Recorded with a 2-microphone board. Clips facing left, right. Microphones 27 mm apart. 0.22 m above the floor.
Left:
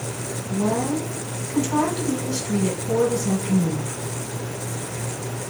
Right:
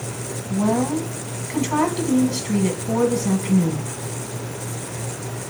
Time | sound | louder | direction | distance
0.5 | a woman speaking | right 2 dB | 30° right (ahead or behind) | 1.4 m